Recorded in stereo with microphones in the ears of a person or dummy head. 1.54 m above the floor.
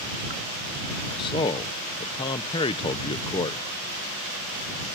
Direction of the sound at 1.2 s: 25° left (ahead or behind).